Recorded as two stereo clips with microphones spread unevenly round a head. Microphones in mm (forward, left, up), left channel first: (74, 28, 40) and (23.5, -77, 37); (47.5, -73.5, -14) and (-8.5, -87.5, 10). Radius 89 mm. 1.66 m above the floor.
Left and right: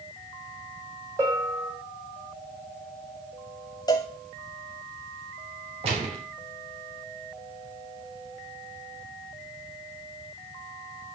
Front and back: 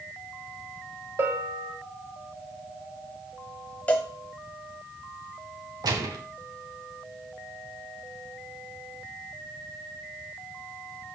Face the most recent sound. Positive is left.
turn(degrees=-165)